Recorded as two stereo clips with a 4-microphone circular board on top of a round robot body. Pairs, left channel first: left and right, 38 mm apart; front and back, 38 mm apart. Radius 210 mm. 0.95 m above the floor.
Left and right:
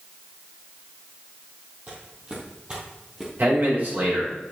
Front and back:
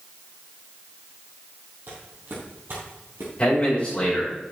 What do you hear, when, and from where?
1.9 s footsteps: 145° right, 3 m; by 3.3 s 170° right, 1.9 m
3.4 s a man speaking: 60° right, 5 m